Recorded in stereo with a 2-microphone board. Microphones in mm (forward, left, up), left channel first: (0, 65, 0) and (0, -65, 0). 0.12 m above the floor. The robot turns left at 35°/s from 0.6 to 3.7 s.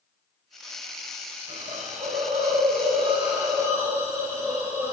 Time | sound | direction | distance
1.5 | a hiss | 75° right | 5.5 m